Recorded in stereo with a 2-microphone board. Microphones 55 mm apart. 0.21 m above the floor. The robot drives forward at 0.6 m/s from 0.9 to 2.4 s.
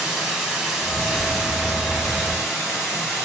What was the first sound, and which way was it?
Running water, centre (ahead or behind).